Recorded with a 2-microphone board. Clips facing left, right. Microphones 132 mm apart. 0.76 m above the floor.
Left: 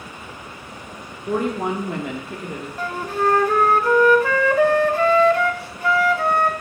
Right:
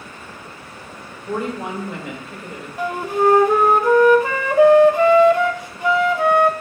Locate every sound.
1.3 s a woman speaking: 65° left (ahead or behind), 1.6 m
2.8 s a flute: 15° right (ahead or behind), 0.6 m